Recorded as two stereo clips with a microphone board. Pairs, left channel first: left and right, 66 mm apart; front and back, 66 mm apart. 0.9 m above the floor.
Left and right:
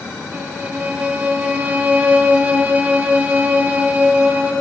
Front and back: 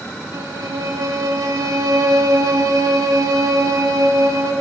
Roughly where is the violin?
Behind right.